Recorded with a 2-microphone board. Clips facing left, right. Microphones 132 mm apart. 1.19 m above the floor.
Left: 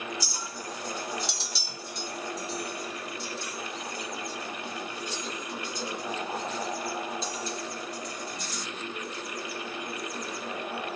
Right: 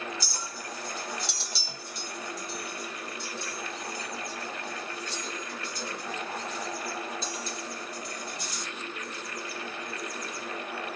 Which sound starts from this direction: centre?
A clink, at 0.2 s.